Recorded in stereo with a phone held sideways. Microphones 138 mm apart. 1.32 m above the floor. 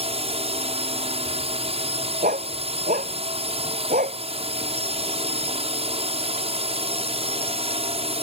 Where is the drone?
45° right (ahead or behind).